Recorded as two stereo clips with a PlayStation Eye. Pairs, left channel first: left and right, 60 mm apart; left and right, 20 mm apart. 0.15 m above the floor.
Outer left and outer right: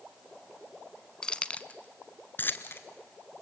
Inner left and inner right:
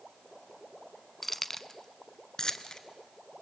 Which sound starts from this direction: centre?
Keys jangling, at 1.2 s.